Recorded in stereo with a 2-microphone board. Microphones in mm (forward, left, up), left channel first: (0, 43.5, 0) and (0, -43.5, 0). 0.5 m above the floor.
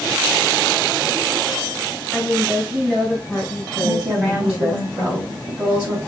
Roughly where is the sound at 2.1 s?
Centre.